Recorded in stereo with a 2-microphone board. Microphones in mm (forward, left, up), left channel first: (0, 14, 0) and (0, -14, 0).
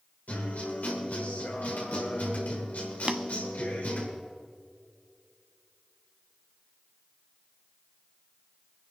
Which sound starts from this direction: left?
A guitar, at 0.3 s.